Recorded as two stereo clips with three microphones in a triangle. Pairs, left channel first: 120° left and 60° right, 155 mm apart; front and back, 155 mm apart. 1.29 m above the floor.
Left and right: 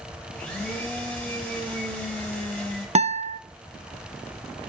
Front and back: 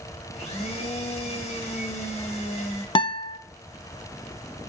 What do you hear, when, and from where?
0.3 s a blender: 45° left, 2.5 m
3.0 s a guitar: 40° right, 0.5 m